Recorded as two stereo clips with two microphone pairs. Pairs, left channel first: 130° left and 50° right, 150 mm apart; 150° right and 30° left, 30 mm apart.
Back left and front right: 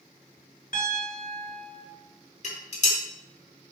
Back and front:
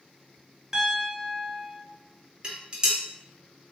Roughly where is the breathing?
I don't hear breathing.